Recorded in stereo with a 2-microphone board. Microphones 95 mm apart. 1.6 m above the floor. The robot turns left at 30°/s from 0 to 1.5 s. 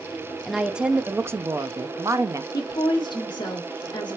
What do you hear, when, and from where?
0.5 s a woman speaking: straight ahead, 0.5 m; by 2.4 s 30° right, 0.5 m
2.5 s a woman speaking: 50° left (ahead or behind), 1.1 m